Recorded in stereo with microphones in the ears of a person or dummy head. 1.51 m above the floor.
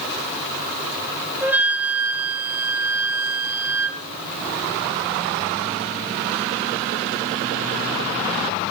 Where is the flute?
10° right (ahead or behind), 3 m.